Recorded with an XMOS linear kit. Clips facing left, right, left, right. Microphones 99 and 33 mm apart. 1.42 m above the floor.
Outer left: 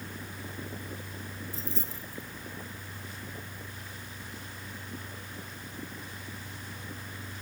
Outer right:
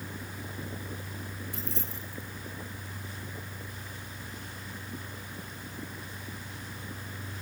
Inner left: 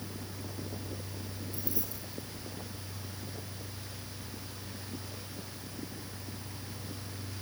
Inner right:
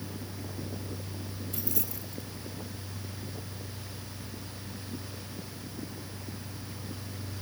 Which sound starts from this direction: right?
Keys jangling, at 1.5 s.